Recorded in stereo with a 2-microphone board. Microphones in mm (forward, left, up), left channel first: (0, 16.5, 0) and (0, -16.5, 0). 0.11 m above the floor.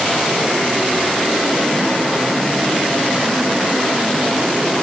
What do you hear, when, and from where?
Only background noise.